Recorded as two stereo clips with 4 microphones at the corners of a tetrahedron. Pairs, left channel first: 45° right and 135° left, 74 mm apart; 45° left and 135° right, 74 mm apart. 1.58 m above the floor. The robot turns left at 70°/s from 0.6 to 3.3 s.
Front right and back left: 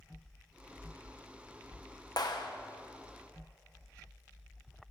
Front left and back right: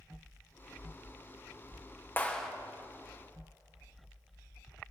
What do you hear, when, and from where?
2.2 s a clap: 20° right, 1.2 m; by 2.5 s 45° right, 1.2 m